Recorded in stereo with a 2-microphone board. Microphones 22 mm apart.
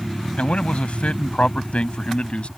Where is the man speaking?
75° left (ahead or behind); by 2.5 s 65° left (ahead or behind).